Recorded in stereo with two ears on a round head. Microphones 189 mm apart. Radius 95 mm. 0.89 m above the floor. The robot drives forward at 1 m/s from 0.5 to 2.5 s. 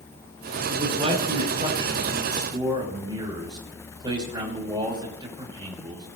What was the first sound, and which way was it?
A man speaking, 30° right (ahead or behind).